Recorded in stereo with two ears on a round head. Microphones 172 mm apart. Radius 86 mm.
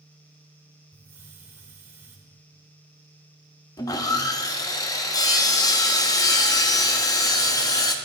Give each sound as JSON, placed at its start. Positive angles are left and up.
{"t": 0.9, "sound": "a hiss", "side_deg": -15, "distance_m": 1.6}
{"t": 3.8, "sound": "sawing", "side_deg": 20, "distance_m": 0.7}